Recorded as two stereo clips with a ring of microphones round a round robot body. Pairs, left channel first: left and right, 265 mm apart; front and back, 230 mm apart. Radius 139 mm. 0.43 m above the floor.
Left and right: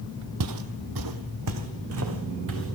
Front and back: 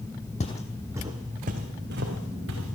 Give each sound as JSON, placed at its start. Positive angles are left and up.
{"t": 0.4, "sound": "footsteps", "azimuth_deg": -65, "distance_m": 0.8}